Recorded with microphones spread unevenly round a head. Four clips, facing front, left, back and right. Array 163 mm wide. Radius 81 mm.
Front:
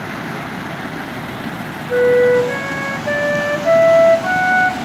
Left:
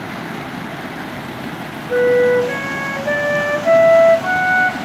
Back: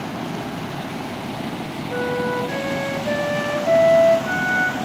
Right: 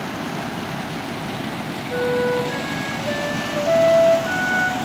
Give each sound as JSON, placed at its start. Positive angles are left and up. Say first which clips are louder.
{"t": 1.9, "sound": "a flute", "louder": "left 8 dB, front 12 dB", "azimuth_deg": 60, "distance_m": 1.0}